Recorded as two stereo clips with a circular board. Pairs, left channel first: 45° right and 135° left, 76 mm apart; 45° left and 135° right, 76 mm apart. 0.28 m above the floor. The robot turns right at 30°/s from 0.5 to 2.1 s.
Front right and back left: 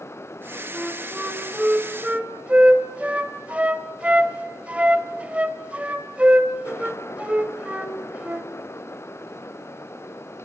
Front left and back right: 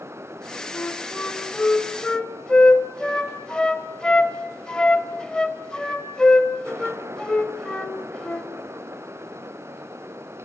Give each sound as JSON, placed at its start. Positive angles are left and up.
{"t": 0.7, "sound": "a flute", "azimuth_deg": 60, "distance_m": 1.6}